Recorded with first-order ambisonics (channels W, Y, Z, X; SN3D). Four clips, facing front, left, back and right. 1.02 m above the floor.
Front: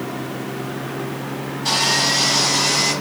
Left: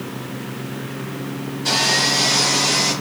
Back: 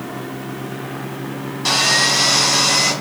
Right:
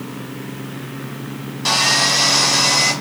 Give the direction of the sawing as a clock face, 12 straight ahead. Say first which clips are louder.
Right 2 dB, back 3 dB; 4 o'clock.